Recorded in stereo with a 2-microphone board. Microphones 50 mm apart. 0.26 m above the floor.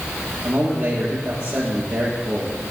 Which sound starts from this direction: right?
A man speaking, at 0.4 s.